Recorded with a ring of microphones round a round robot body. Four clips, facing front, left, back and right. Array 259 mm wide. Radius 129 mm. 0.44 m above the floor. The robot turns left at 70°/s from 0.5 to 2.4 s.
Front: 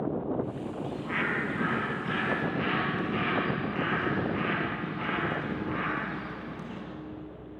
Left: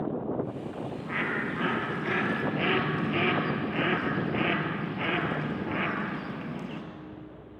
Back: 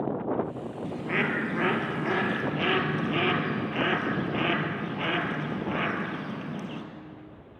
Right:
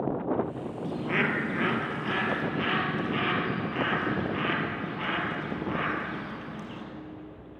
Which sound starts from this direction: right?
A bird, at 0.8 s.